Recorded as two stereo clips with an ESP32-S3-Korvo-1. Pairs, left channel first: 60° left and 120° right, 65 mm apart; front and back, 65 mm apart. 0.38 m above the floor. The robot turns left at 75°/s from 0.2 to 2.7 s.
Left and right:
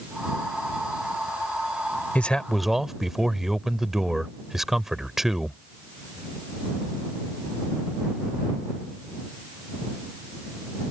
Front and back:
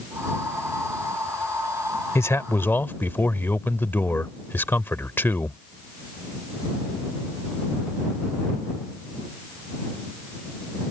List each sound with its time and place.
2.1 s a man speaking: 5° left; by 5.6 s 35° right